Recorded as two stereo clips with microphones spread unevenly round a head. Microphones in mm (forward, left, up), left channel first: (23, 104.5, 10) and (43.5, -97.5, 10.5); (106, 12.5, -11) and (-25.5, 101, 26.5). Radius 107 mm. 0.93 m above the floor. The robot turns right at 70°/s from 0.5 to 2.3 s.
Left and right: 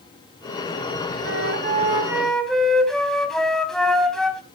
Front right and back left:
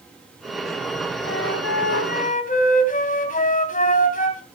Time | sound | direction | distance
1.2 | a flute | 65° right | 3.5 m